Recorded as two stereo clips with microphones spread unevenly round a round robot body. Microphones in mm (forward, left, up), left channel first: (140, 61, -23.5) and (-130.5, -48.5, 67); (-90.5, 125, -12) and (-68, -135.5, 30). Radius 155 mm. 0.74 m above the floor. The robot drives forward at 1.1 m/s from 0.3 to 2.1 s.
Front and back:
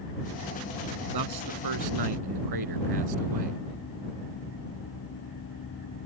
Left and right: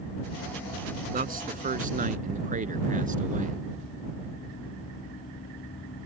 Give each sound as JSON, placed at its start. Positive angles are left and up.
{"t": 1.1, "sound": "a man speaking", "azimuth_deg": -140}